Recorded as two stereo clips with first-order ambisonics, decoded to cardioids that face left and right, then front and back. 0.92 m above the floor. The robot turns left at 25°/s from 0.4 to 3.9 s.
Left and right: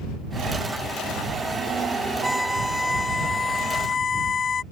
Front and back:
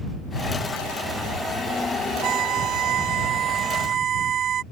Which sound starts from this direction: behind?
A violin, at 2.2 s.